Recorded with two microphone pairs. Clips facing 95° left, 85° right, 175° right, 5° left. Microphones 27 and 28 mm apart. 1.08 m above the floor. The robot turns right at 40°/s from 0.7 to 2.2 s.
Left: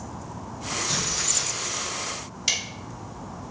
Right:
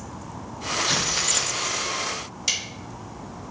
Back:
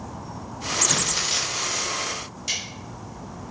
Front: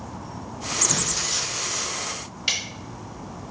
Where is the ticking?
15° left, 1.2 m.